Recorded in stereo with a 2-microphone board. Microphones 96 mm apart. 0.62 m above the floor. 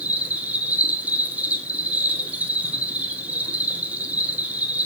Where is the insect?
15° right (ahead or behind), 3 m.